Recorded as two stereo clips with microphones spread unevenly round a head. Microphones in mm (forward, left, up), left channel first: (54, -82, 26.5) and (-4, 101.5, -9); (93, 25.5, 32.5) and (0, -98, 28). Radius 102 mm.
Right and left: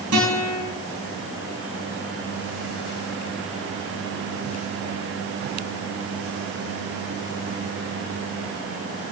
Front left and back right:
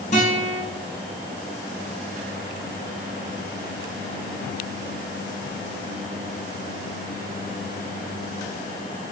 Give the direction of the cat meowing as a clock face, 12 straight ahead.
No cat meowing in this recording.